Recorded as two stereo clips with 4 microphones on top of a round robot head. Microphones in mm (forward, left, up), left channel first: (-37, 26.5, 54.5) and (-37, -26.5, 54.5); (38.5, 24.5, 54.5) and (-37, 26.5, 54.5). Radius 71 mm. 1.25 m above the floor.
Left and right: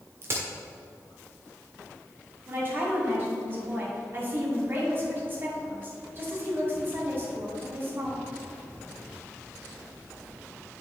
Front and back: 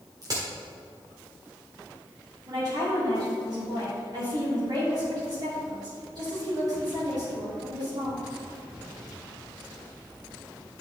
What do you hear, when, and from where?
0.2 s a crack: 130° right, 1.4 m
2.5 s a woman speaking: 140° right, 2.5 m